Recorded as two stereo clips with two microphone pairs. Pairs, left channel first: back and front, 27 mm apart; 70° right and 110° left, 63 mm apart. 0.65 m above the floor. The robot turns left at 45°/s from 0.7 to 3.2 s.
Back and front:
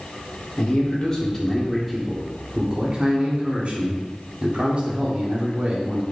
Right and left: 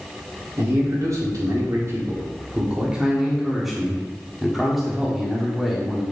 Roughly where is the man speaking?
Behind left.